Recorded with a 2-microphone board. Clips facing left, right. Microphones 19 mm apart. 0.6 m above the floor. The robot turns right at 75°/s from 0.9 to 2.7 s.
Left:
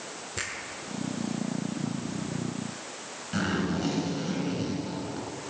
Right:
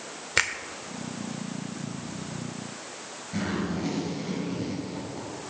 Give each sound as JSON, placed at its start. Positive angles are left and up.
{"t": 0.4, "sound": "a finger snap", "side_deg": -75, "distance_m": 1.2}
{"t": 3.3, "sound": "a zipper", "side_deg": 60, "distance_m": 7.0}